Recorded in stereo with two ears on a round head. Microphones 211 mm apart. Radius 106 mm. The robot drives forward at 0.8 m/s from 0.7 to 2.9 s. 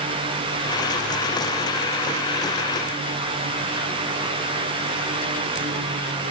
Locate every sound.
Only background noise.